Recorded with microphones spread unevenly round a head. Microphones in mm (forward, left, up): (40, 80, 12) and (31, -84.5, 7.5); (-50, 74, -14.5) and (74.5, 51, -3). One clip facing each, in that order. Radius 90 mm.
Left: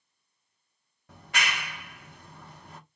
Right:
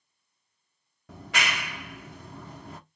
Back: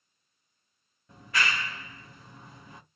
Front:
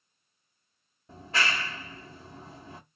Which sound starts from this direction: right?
A clap, at 1.1 s.